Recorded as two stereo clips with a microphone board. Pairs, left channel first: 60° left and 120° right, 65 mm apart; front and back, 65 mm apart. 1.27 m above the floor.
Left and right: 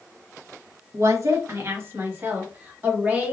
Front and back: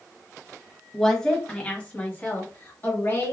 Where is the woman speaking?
85° right, 1.1 m; by 3.3 s 55° right, 2.5 m.